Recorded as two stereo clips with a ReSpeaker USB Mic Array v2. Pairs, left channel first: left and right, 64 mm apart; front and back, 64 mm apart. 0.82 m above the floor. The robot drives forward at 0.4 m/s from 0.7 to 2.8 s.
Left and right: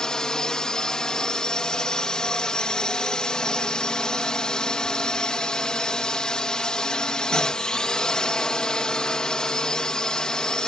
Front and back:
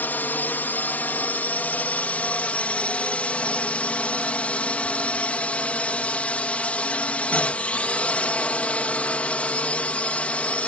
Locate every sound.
0.0 s a drone: 20° left; by 10.7 s 30° left